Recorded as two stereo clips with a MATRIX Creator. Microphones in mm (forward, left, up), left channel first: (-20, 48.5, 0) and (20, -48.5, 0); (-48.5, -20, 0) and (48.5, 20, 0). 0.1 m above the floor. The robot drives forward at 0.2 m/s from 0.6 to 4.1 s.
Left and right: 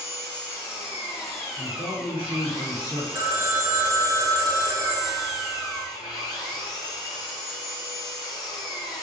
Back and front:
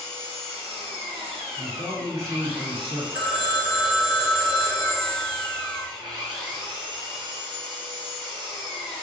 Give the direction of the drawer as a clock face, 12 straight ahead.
No drawer in this recording.